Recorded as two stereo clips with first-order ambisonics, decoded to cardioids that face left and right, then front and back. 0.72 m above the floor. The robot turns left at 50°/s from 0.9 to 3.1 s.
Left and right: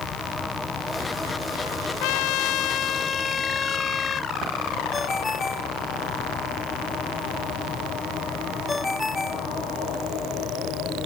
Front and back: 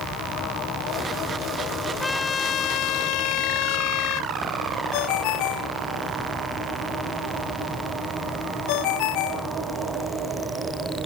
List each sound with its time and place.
2.0 s a trumpet: 80° left; by 4.3 s 25° left
4.9 s a ringtone: 10° left